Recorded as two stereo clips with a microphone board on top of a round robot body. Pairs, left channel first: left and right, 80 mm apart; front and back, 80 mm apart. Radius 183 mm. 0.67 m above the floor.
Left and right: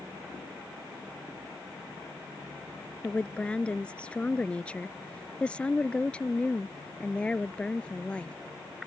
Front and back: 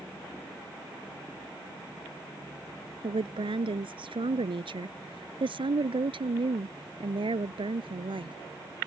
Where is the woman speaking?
165° left.